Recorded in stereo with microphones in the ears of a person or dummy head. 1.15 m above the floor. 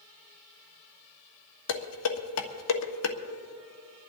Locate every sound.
1.7 s dishes clattering: 80° left, 1.4 m